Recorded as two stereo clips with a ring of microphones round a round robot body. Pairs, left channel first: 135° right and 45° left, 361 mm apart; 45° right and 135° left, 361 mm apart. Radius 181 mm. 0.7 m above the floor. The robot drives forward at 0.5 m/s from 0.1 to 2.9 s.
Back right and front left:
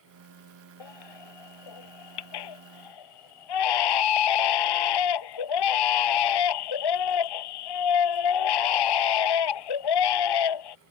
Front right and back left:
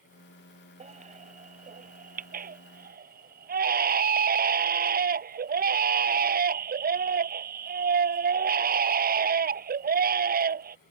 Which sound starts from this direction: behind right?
A baby crying, at 0.8 s.